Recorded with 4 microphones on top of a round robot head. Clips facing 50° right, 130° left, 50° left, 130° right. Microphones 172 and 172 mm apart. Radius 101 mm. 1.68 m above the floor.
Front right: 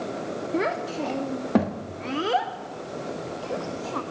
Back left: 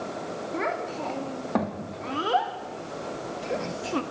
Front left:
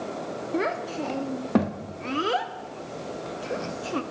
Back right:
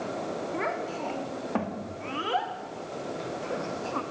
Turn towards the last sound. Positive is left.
turn(degrees=90)